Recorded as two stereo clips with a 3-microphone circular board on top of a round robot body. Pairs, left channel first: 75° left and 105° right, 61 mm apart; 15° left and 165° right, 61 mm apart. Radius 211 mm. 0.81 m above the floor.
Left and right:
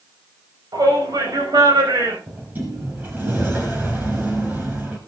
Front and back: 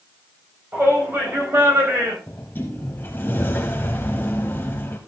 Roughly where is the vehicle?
No vehicle in this recording.